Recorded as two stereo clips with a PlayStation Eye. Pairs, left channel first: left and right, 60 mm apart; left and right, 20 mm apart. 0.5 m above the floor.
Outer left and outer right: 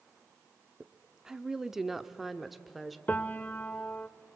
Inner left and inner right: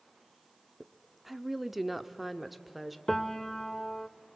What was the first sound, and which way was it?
A woman speaking, 10° right (ahead or behind).